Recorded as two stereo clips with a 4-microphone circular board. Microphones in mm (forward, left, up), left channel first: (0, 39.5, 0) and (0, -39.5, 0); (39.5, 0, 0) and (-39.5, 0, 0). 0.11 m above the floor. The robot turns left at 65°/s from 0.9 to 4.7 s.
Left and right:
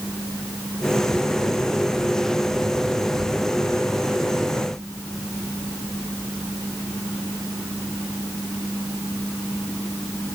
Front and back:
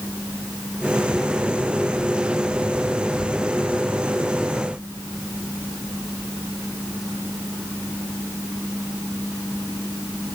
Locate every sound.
Only background noise.